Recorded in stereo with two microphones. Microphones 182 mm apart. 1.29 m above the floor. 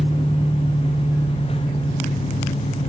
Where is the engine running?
55° left (ahead or behind), 4.5 m.